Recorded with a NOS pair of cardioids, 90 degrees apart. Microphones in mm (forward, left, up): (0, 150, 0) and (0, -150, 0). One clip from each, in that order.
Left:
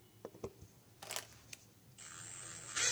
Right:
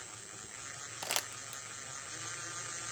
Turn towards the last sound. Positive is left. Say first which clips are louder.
# right 10 dB
turn(degrees=-45)